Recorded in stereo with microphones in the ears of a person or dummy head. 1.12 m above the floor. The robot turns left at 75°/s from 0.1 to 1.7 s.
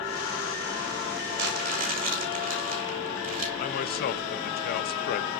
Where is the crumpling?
60° right (ahead or behind), 2.5 m; by 3.5 s 35° right (ahead or behind), 2.5 m.